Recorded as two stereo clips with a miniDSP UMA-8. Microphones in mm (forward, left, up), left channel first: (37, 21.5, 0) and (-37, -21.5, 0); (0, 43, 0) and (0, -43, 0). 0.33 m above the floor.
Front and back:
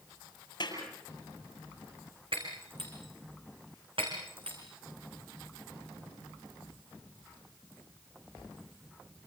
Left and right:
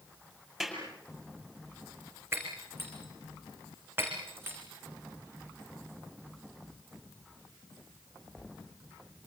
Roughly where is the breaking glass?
Behind right.